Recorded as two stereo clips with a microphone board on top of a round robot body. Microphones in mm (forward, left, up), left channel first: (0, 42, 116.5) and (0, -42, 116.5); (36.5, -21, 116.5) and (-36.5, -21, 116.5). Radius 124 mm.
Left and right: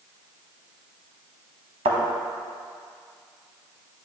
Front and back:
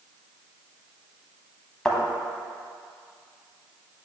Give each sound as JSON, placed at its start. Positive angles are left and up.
{"t": 1.9, "sound": "a thud", "azimuth_deg": -80, "distance_m": 0.9}